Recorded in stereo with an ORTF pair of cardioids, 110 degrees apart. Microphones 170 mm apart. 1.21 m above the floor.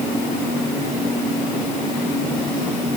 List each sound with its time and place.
Only background noise.